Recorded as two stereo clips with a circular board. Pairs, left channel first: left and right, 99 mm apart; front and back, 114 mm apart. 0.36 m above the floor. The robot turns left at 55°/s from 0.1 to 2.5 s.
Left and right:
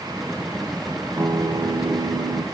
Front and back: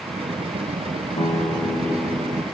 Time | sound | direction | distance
1.2 | a guitar | 20° right | 3.5 m